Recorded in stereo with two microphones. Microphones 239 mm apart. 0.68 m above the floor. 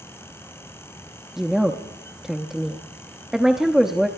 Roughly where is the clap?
I don't hear a clap.